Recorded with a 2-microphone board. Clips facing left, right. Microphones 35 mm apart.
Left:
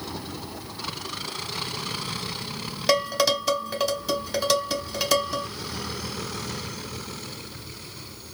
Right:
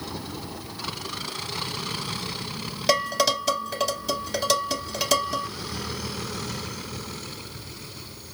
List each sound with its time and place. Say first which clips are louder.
2.9 s dishes clattering: even; 5° left (ahead or behind), 2.0 m